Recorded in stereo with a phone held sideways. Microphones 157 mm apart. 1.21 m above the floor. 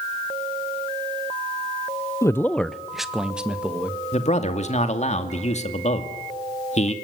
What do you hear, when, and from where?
2.2 s a man speaking: 20° left (ahead or behind), 0.6 m; by 4.0 s 10° right (ahead or behind), 2 m
4.1 s a man speaking: 45° left (ahead or behind), 2 m